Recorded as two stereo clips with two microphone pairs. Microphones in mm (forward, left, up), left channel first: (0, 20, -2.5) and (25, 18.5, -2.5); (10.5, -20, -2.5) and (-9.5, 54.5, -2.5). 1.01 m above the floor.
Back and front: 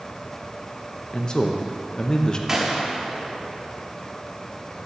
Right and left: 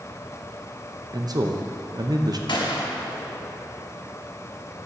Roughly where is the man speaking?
Behind left.